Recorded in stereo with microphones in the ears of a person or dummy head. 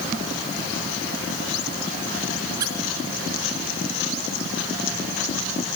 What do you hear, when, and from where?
2.6 s a squeak: 15° right (ahead or behind), 1.1 m